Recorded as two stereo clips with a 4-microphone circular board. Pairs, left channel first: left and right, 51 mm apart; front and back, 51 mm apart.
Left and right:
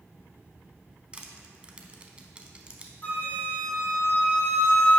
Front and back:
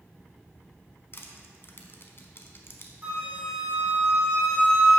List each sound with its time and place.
1.1 s crushing: 25° right, 0.7 m
3.0 s a flute: 125° left, 2.0 m